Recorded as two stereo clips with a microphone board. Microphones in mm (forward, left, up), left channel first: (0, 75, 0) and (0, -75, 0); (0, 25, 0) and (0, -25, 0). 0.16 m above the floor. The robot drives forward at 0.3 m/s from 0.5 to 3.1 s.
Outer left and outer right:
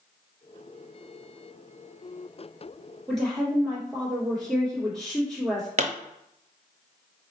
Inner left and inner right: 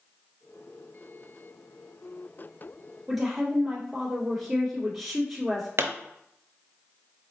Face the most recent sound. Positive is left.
turn(degrees=-55)  # may be behind; listen again after turning